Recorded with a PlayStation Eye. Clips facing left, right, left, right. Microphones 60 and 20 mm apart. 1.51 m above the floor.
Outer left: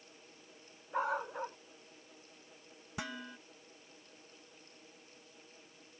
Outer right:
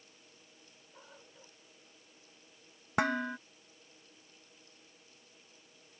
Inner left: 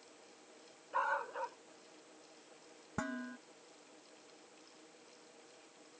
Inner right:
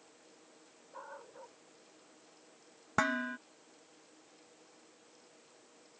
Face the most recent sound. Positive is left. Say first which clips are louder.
# outer right 12 dB, inner right 9 dB
turn(degrees=-55)  # may be behind; listen again after turning